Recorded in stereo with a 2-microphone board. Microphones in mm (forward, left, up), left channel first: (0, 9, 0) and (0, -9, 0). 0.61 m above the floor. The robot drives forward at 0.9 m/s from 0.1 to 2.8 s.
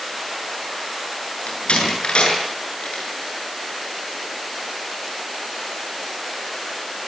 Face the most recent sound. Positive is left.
turn(degrees=70)  # may be behind; listen again after turning